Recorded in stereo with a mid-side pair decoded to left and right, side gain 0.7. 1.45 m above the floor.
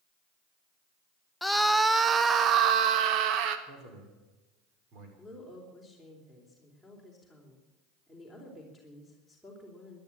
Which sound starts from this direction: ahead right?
A man speaking, at 3.7 s.